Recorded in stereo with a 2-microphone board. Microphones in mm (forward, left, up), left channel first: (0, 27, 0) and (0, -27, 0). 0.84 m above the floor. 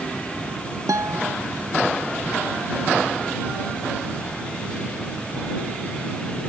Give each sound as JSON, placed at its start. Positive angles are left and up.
{"t": 0.9, "sound": "a guitar", "side_deg": -90}